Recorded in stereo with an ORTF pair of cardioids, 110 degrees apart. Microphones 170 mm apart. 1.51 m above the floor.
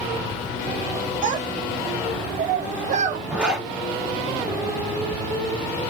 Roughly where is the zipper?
Ahead.